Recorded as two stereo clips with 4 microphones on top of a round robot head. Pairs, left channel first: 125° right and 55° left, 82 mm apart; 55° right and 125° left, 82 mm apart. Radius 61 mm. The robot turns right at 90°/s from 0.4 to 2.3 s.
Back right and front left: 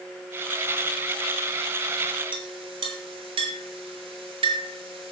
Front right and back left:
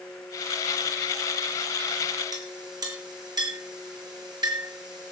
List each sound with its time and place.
2.3 s a clink: 80° left, 4.5 m